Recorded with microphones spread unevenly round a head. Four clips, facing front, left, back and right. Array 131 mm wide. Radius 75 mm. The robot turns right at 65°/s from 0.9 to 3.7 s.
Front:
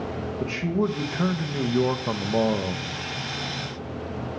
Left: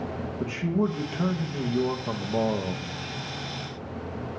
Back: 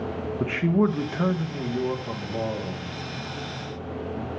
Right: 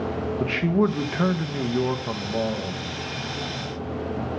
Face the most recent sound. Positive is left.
turn(degrees=75)